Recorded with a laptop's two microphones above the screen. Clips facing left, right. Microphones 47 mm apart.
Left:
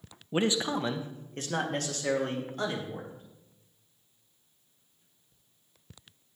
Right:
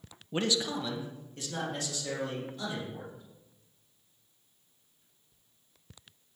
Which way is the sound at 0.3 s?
15° left (ahead or behind).